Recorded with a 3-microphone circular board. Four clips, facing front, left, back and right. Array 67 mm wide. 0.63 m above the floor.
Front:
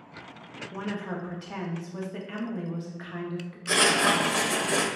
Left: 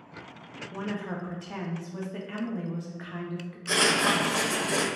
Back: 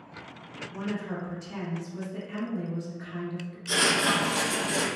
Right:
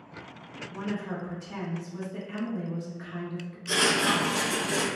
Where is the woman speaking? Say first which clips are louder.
Even, even; 40° left, 0.8 m.